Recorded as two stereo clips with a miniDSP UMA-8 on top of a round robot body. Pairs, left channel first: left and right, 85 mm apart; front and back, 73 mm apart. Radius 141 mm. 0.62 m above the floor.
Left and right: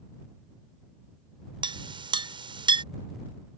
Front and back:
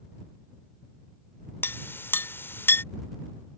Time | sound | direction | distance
1.6 | a clink | 65° right | ?